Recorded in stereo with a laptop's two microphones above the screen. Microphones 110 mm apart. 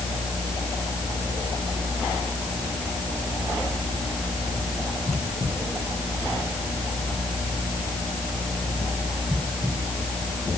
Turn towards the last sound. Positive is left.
turn(degrees=5)  # may be behind; listen again after turning